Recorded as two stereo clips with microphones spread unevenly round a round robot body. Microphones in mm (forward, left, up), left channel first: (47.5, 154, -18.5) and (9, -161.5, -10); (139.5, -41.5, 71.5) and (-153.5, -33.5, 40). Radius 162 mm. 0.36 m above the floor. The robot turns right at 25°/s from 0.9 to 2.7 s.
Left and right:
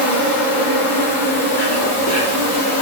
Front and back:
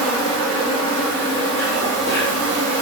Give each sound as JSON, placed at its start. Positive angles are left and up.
{"t": 0.0, "sound": "an insect", "azimuth_deg": 90, "distance_m": 1.4}